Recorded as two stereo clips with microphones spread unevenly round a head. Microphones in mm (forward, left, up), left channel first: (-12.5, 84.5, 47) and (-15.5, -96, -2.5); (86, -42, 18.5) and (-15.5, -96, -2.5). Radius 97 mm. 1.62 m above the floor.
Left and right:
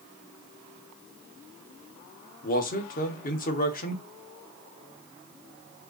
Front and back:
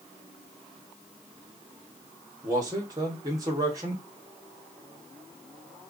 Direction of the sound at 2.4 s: 135° left.